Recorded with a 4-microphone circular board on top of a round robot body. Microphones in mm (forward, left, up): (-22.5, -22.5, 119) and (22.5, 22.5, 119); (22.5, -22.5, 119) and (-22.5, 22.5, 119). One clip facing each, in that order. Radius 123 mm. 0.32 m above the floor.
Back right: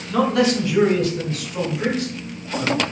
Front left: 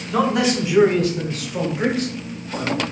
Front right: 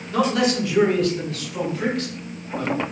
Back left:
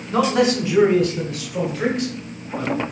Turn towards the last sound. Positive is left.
turn(degrees=60)